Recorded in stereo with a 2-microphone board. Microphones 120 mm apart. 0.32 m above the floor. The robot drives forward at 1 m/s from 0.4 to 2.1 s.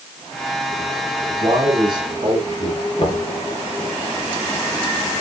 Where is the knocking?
50° left (ahead or behind), 3.5 m.